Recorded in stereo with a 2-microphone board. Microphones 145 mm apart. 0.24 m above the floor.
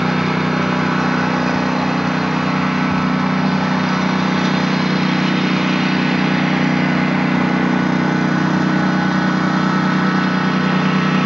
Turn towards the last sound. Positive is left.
turn(degrees=0)  # may be behind; listen again after turning